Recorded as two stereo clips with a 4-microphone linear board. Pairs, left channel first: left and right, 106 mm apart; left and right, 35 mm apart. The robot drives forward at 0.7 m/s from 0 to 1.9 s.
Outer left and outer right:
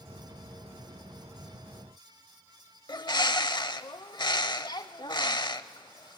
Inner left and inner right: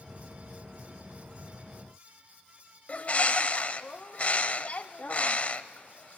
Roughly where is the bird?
Left.